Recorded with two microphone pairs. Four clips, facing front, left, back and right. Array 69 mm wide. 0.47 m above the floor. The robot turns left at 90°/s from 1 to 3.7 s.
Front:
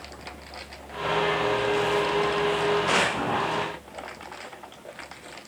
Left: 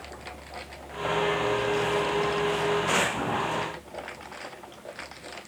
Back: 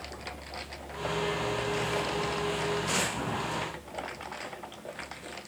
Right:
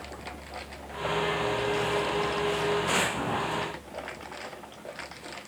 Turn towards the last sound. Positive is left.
No sound to turn to.